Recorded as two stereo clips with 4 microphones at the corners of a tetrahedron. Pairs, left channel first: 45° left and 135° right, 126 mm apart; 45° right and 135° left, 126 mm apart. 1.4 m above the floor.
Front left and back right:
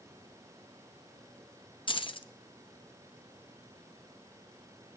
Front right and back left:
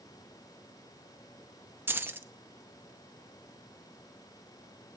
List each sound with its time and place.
1.9 s keys jangling: 65° left, 0.8 m